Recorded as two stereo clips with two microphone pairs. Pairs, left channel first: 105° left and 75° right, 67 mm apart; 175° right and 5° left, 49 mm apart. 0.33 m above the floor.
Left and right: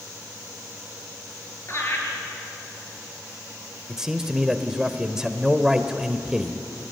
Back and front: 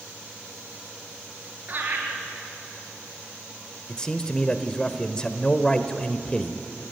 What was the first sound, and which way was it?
Laughter, 55° left.